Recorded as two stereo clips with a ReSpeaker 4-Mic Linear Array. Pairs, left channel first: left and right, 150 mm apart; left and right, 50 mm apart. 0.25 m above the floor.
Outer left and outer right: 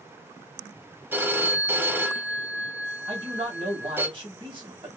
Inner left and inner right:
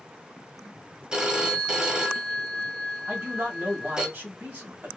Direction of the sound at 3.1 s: 40° right (ahead or behind).